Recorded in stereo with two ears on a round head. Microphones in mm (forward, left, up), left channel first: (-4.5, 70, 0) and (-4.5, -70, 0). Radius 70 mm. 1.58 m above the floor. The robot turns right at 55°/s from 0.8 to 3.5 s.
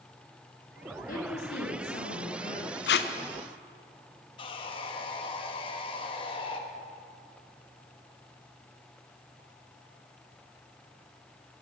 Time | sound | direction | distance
1.1 | a woman speaking | 55° left | 1.7 m
2.9 | tape being pulled | 80° left | 0.6 m
4.4 | sawing | 35° left (ahead or behind) | 1.0 m